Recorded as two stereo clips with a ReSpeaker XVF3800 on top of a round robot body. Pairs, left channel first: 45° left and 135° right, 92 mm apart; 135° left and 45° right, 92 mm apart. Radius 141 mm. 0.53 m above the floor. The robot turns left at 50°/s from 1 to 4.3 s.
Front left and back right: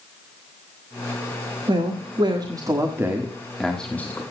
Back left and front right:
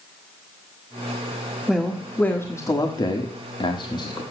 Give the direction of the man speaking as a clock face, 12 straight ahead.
4 o'clock.